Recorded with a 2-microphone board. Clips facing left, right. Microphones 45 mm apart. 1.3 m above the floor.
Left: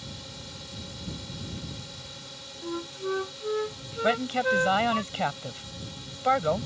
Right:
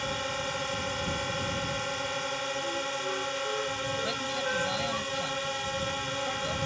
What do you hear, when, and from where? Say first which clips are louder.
0.0 s a drone: right 12 dB; 60° right (ahead or behind)
2.6 s a flute: right 1 dB; 30° left (ahead or behind)
4.0 s a man speaking: left 6 dB; 50° left (ahead or behind)